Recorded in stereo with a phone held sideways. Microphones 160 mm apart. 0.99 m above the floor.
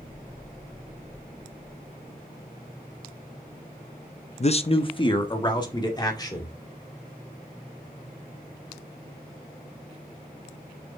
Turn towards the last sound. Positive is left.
turn(degrees=25)  # may be behind; listen again after turning